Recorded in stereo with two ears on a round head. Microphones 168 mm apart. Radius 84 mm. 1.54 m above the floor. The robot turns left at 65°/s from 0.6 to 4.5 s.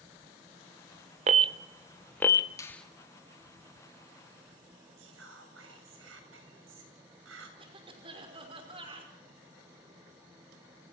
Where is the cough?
30° right (ahead or behind), 6 m.